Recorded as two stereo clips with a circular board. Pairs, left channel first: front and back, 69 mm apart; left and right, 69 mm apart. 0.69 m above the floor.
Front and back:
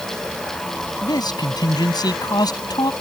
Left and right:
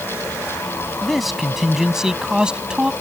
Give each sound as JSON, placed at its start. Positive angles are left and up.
{"t": 1.0, "sound": "a man speaking", "azimuth_deg": 0}